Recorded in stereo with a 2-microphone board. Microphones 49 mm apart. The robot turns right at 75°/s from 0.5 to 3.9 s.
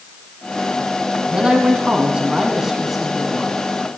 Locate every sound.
1.3 s a man speaking: 20° right (ahead or behind), 1.5 m; by 3.5 s 15° left (ahead or behind), 1.5 m